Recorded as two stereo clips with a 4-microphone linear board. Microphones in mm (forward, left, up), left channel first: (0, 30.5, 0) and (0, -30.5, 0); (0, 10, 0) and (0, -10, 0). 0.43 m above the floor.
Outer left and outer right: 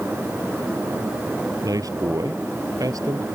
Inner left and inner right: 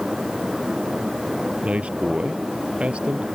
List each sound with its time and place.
1.6 s a man speaking: 85° right; by 3.3 s 80° right